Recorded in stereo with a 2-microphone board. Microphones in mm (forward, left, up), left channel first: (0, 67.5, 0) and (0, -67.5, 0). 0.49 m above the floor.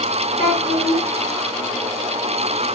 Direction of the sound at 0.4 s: 50° left (ahead or behind).